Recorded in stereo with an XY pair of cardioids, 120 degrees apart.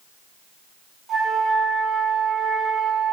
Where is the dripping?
No dripping in this recording.